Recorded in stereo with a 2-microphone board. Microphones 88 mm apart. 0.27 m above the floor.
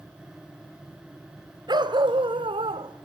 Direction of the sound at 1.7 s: 55° right (ahead or behind).